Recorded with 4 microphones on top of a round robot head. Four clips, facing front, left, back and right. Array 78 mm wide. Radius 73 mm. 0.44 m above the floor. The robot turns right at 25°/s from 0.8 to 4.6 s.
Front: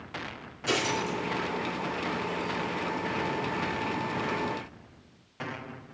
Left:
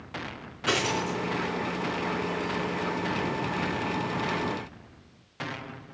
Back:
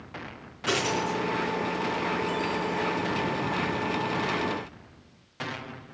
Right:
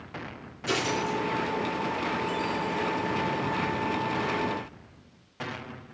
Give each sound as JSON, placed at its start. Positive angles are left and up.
{"t": 0.7, "sound": "a dropped coin", "azimuth_deg": 130, "distance_m": 3.0}